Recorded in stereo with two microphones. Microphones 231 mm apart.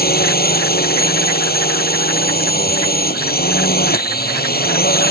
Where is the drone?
40° left (ahead or behind).